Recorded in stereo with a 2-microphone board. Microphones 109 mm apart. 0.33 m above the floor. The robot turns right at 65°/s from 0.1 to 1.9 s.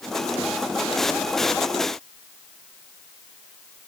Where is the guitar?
No guitar in this recording.